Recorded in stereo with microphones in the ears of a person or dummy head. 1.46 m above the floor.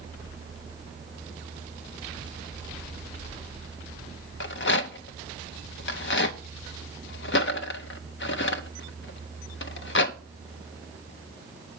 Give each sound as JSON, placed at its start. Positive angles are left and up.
{"t": 4.4, "sound": "a rattle", "side_deg": 55, "distance_m": 0.6}